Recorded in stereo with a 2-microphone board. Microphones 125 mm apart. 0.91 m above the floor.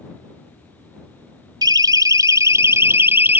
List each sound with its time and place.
1.6 s a siren: 35° right (ahead or behind); by 3.4 s 15° right (ahead or behind)